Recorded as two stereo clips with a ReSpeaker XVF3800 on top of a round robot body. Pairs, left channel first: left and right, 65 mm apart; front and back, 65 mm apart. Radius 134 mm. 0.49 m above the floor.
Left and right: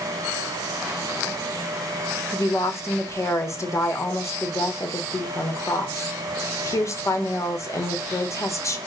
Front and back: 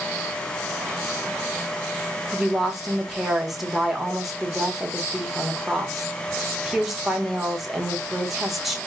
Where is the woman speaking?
95° left, 1.1 m.